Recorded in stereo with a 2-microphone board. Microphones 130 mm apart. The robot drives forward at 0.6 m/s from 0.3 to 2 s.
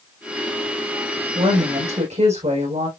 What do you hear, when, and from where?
1.4 s a woman speaking: 60° right (ahead or behind), 5.5 m; by 2.9 s 65° right (ahead or behind), 5.5 m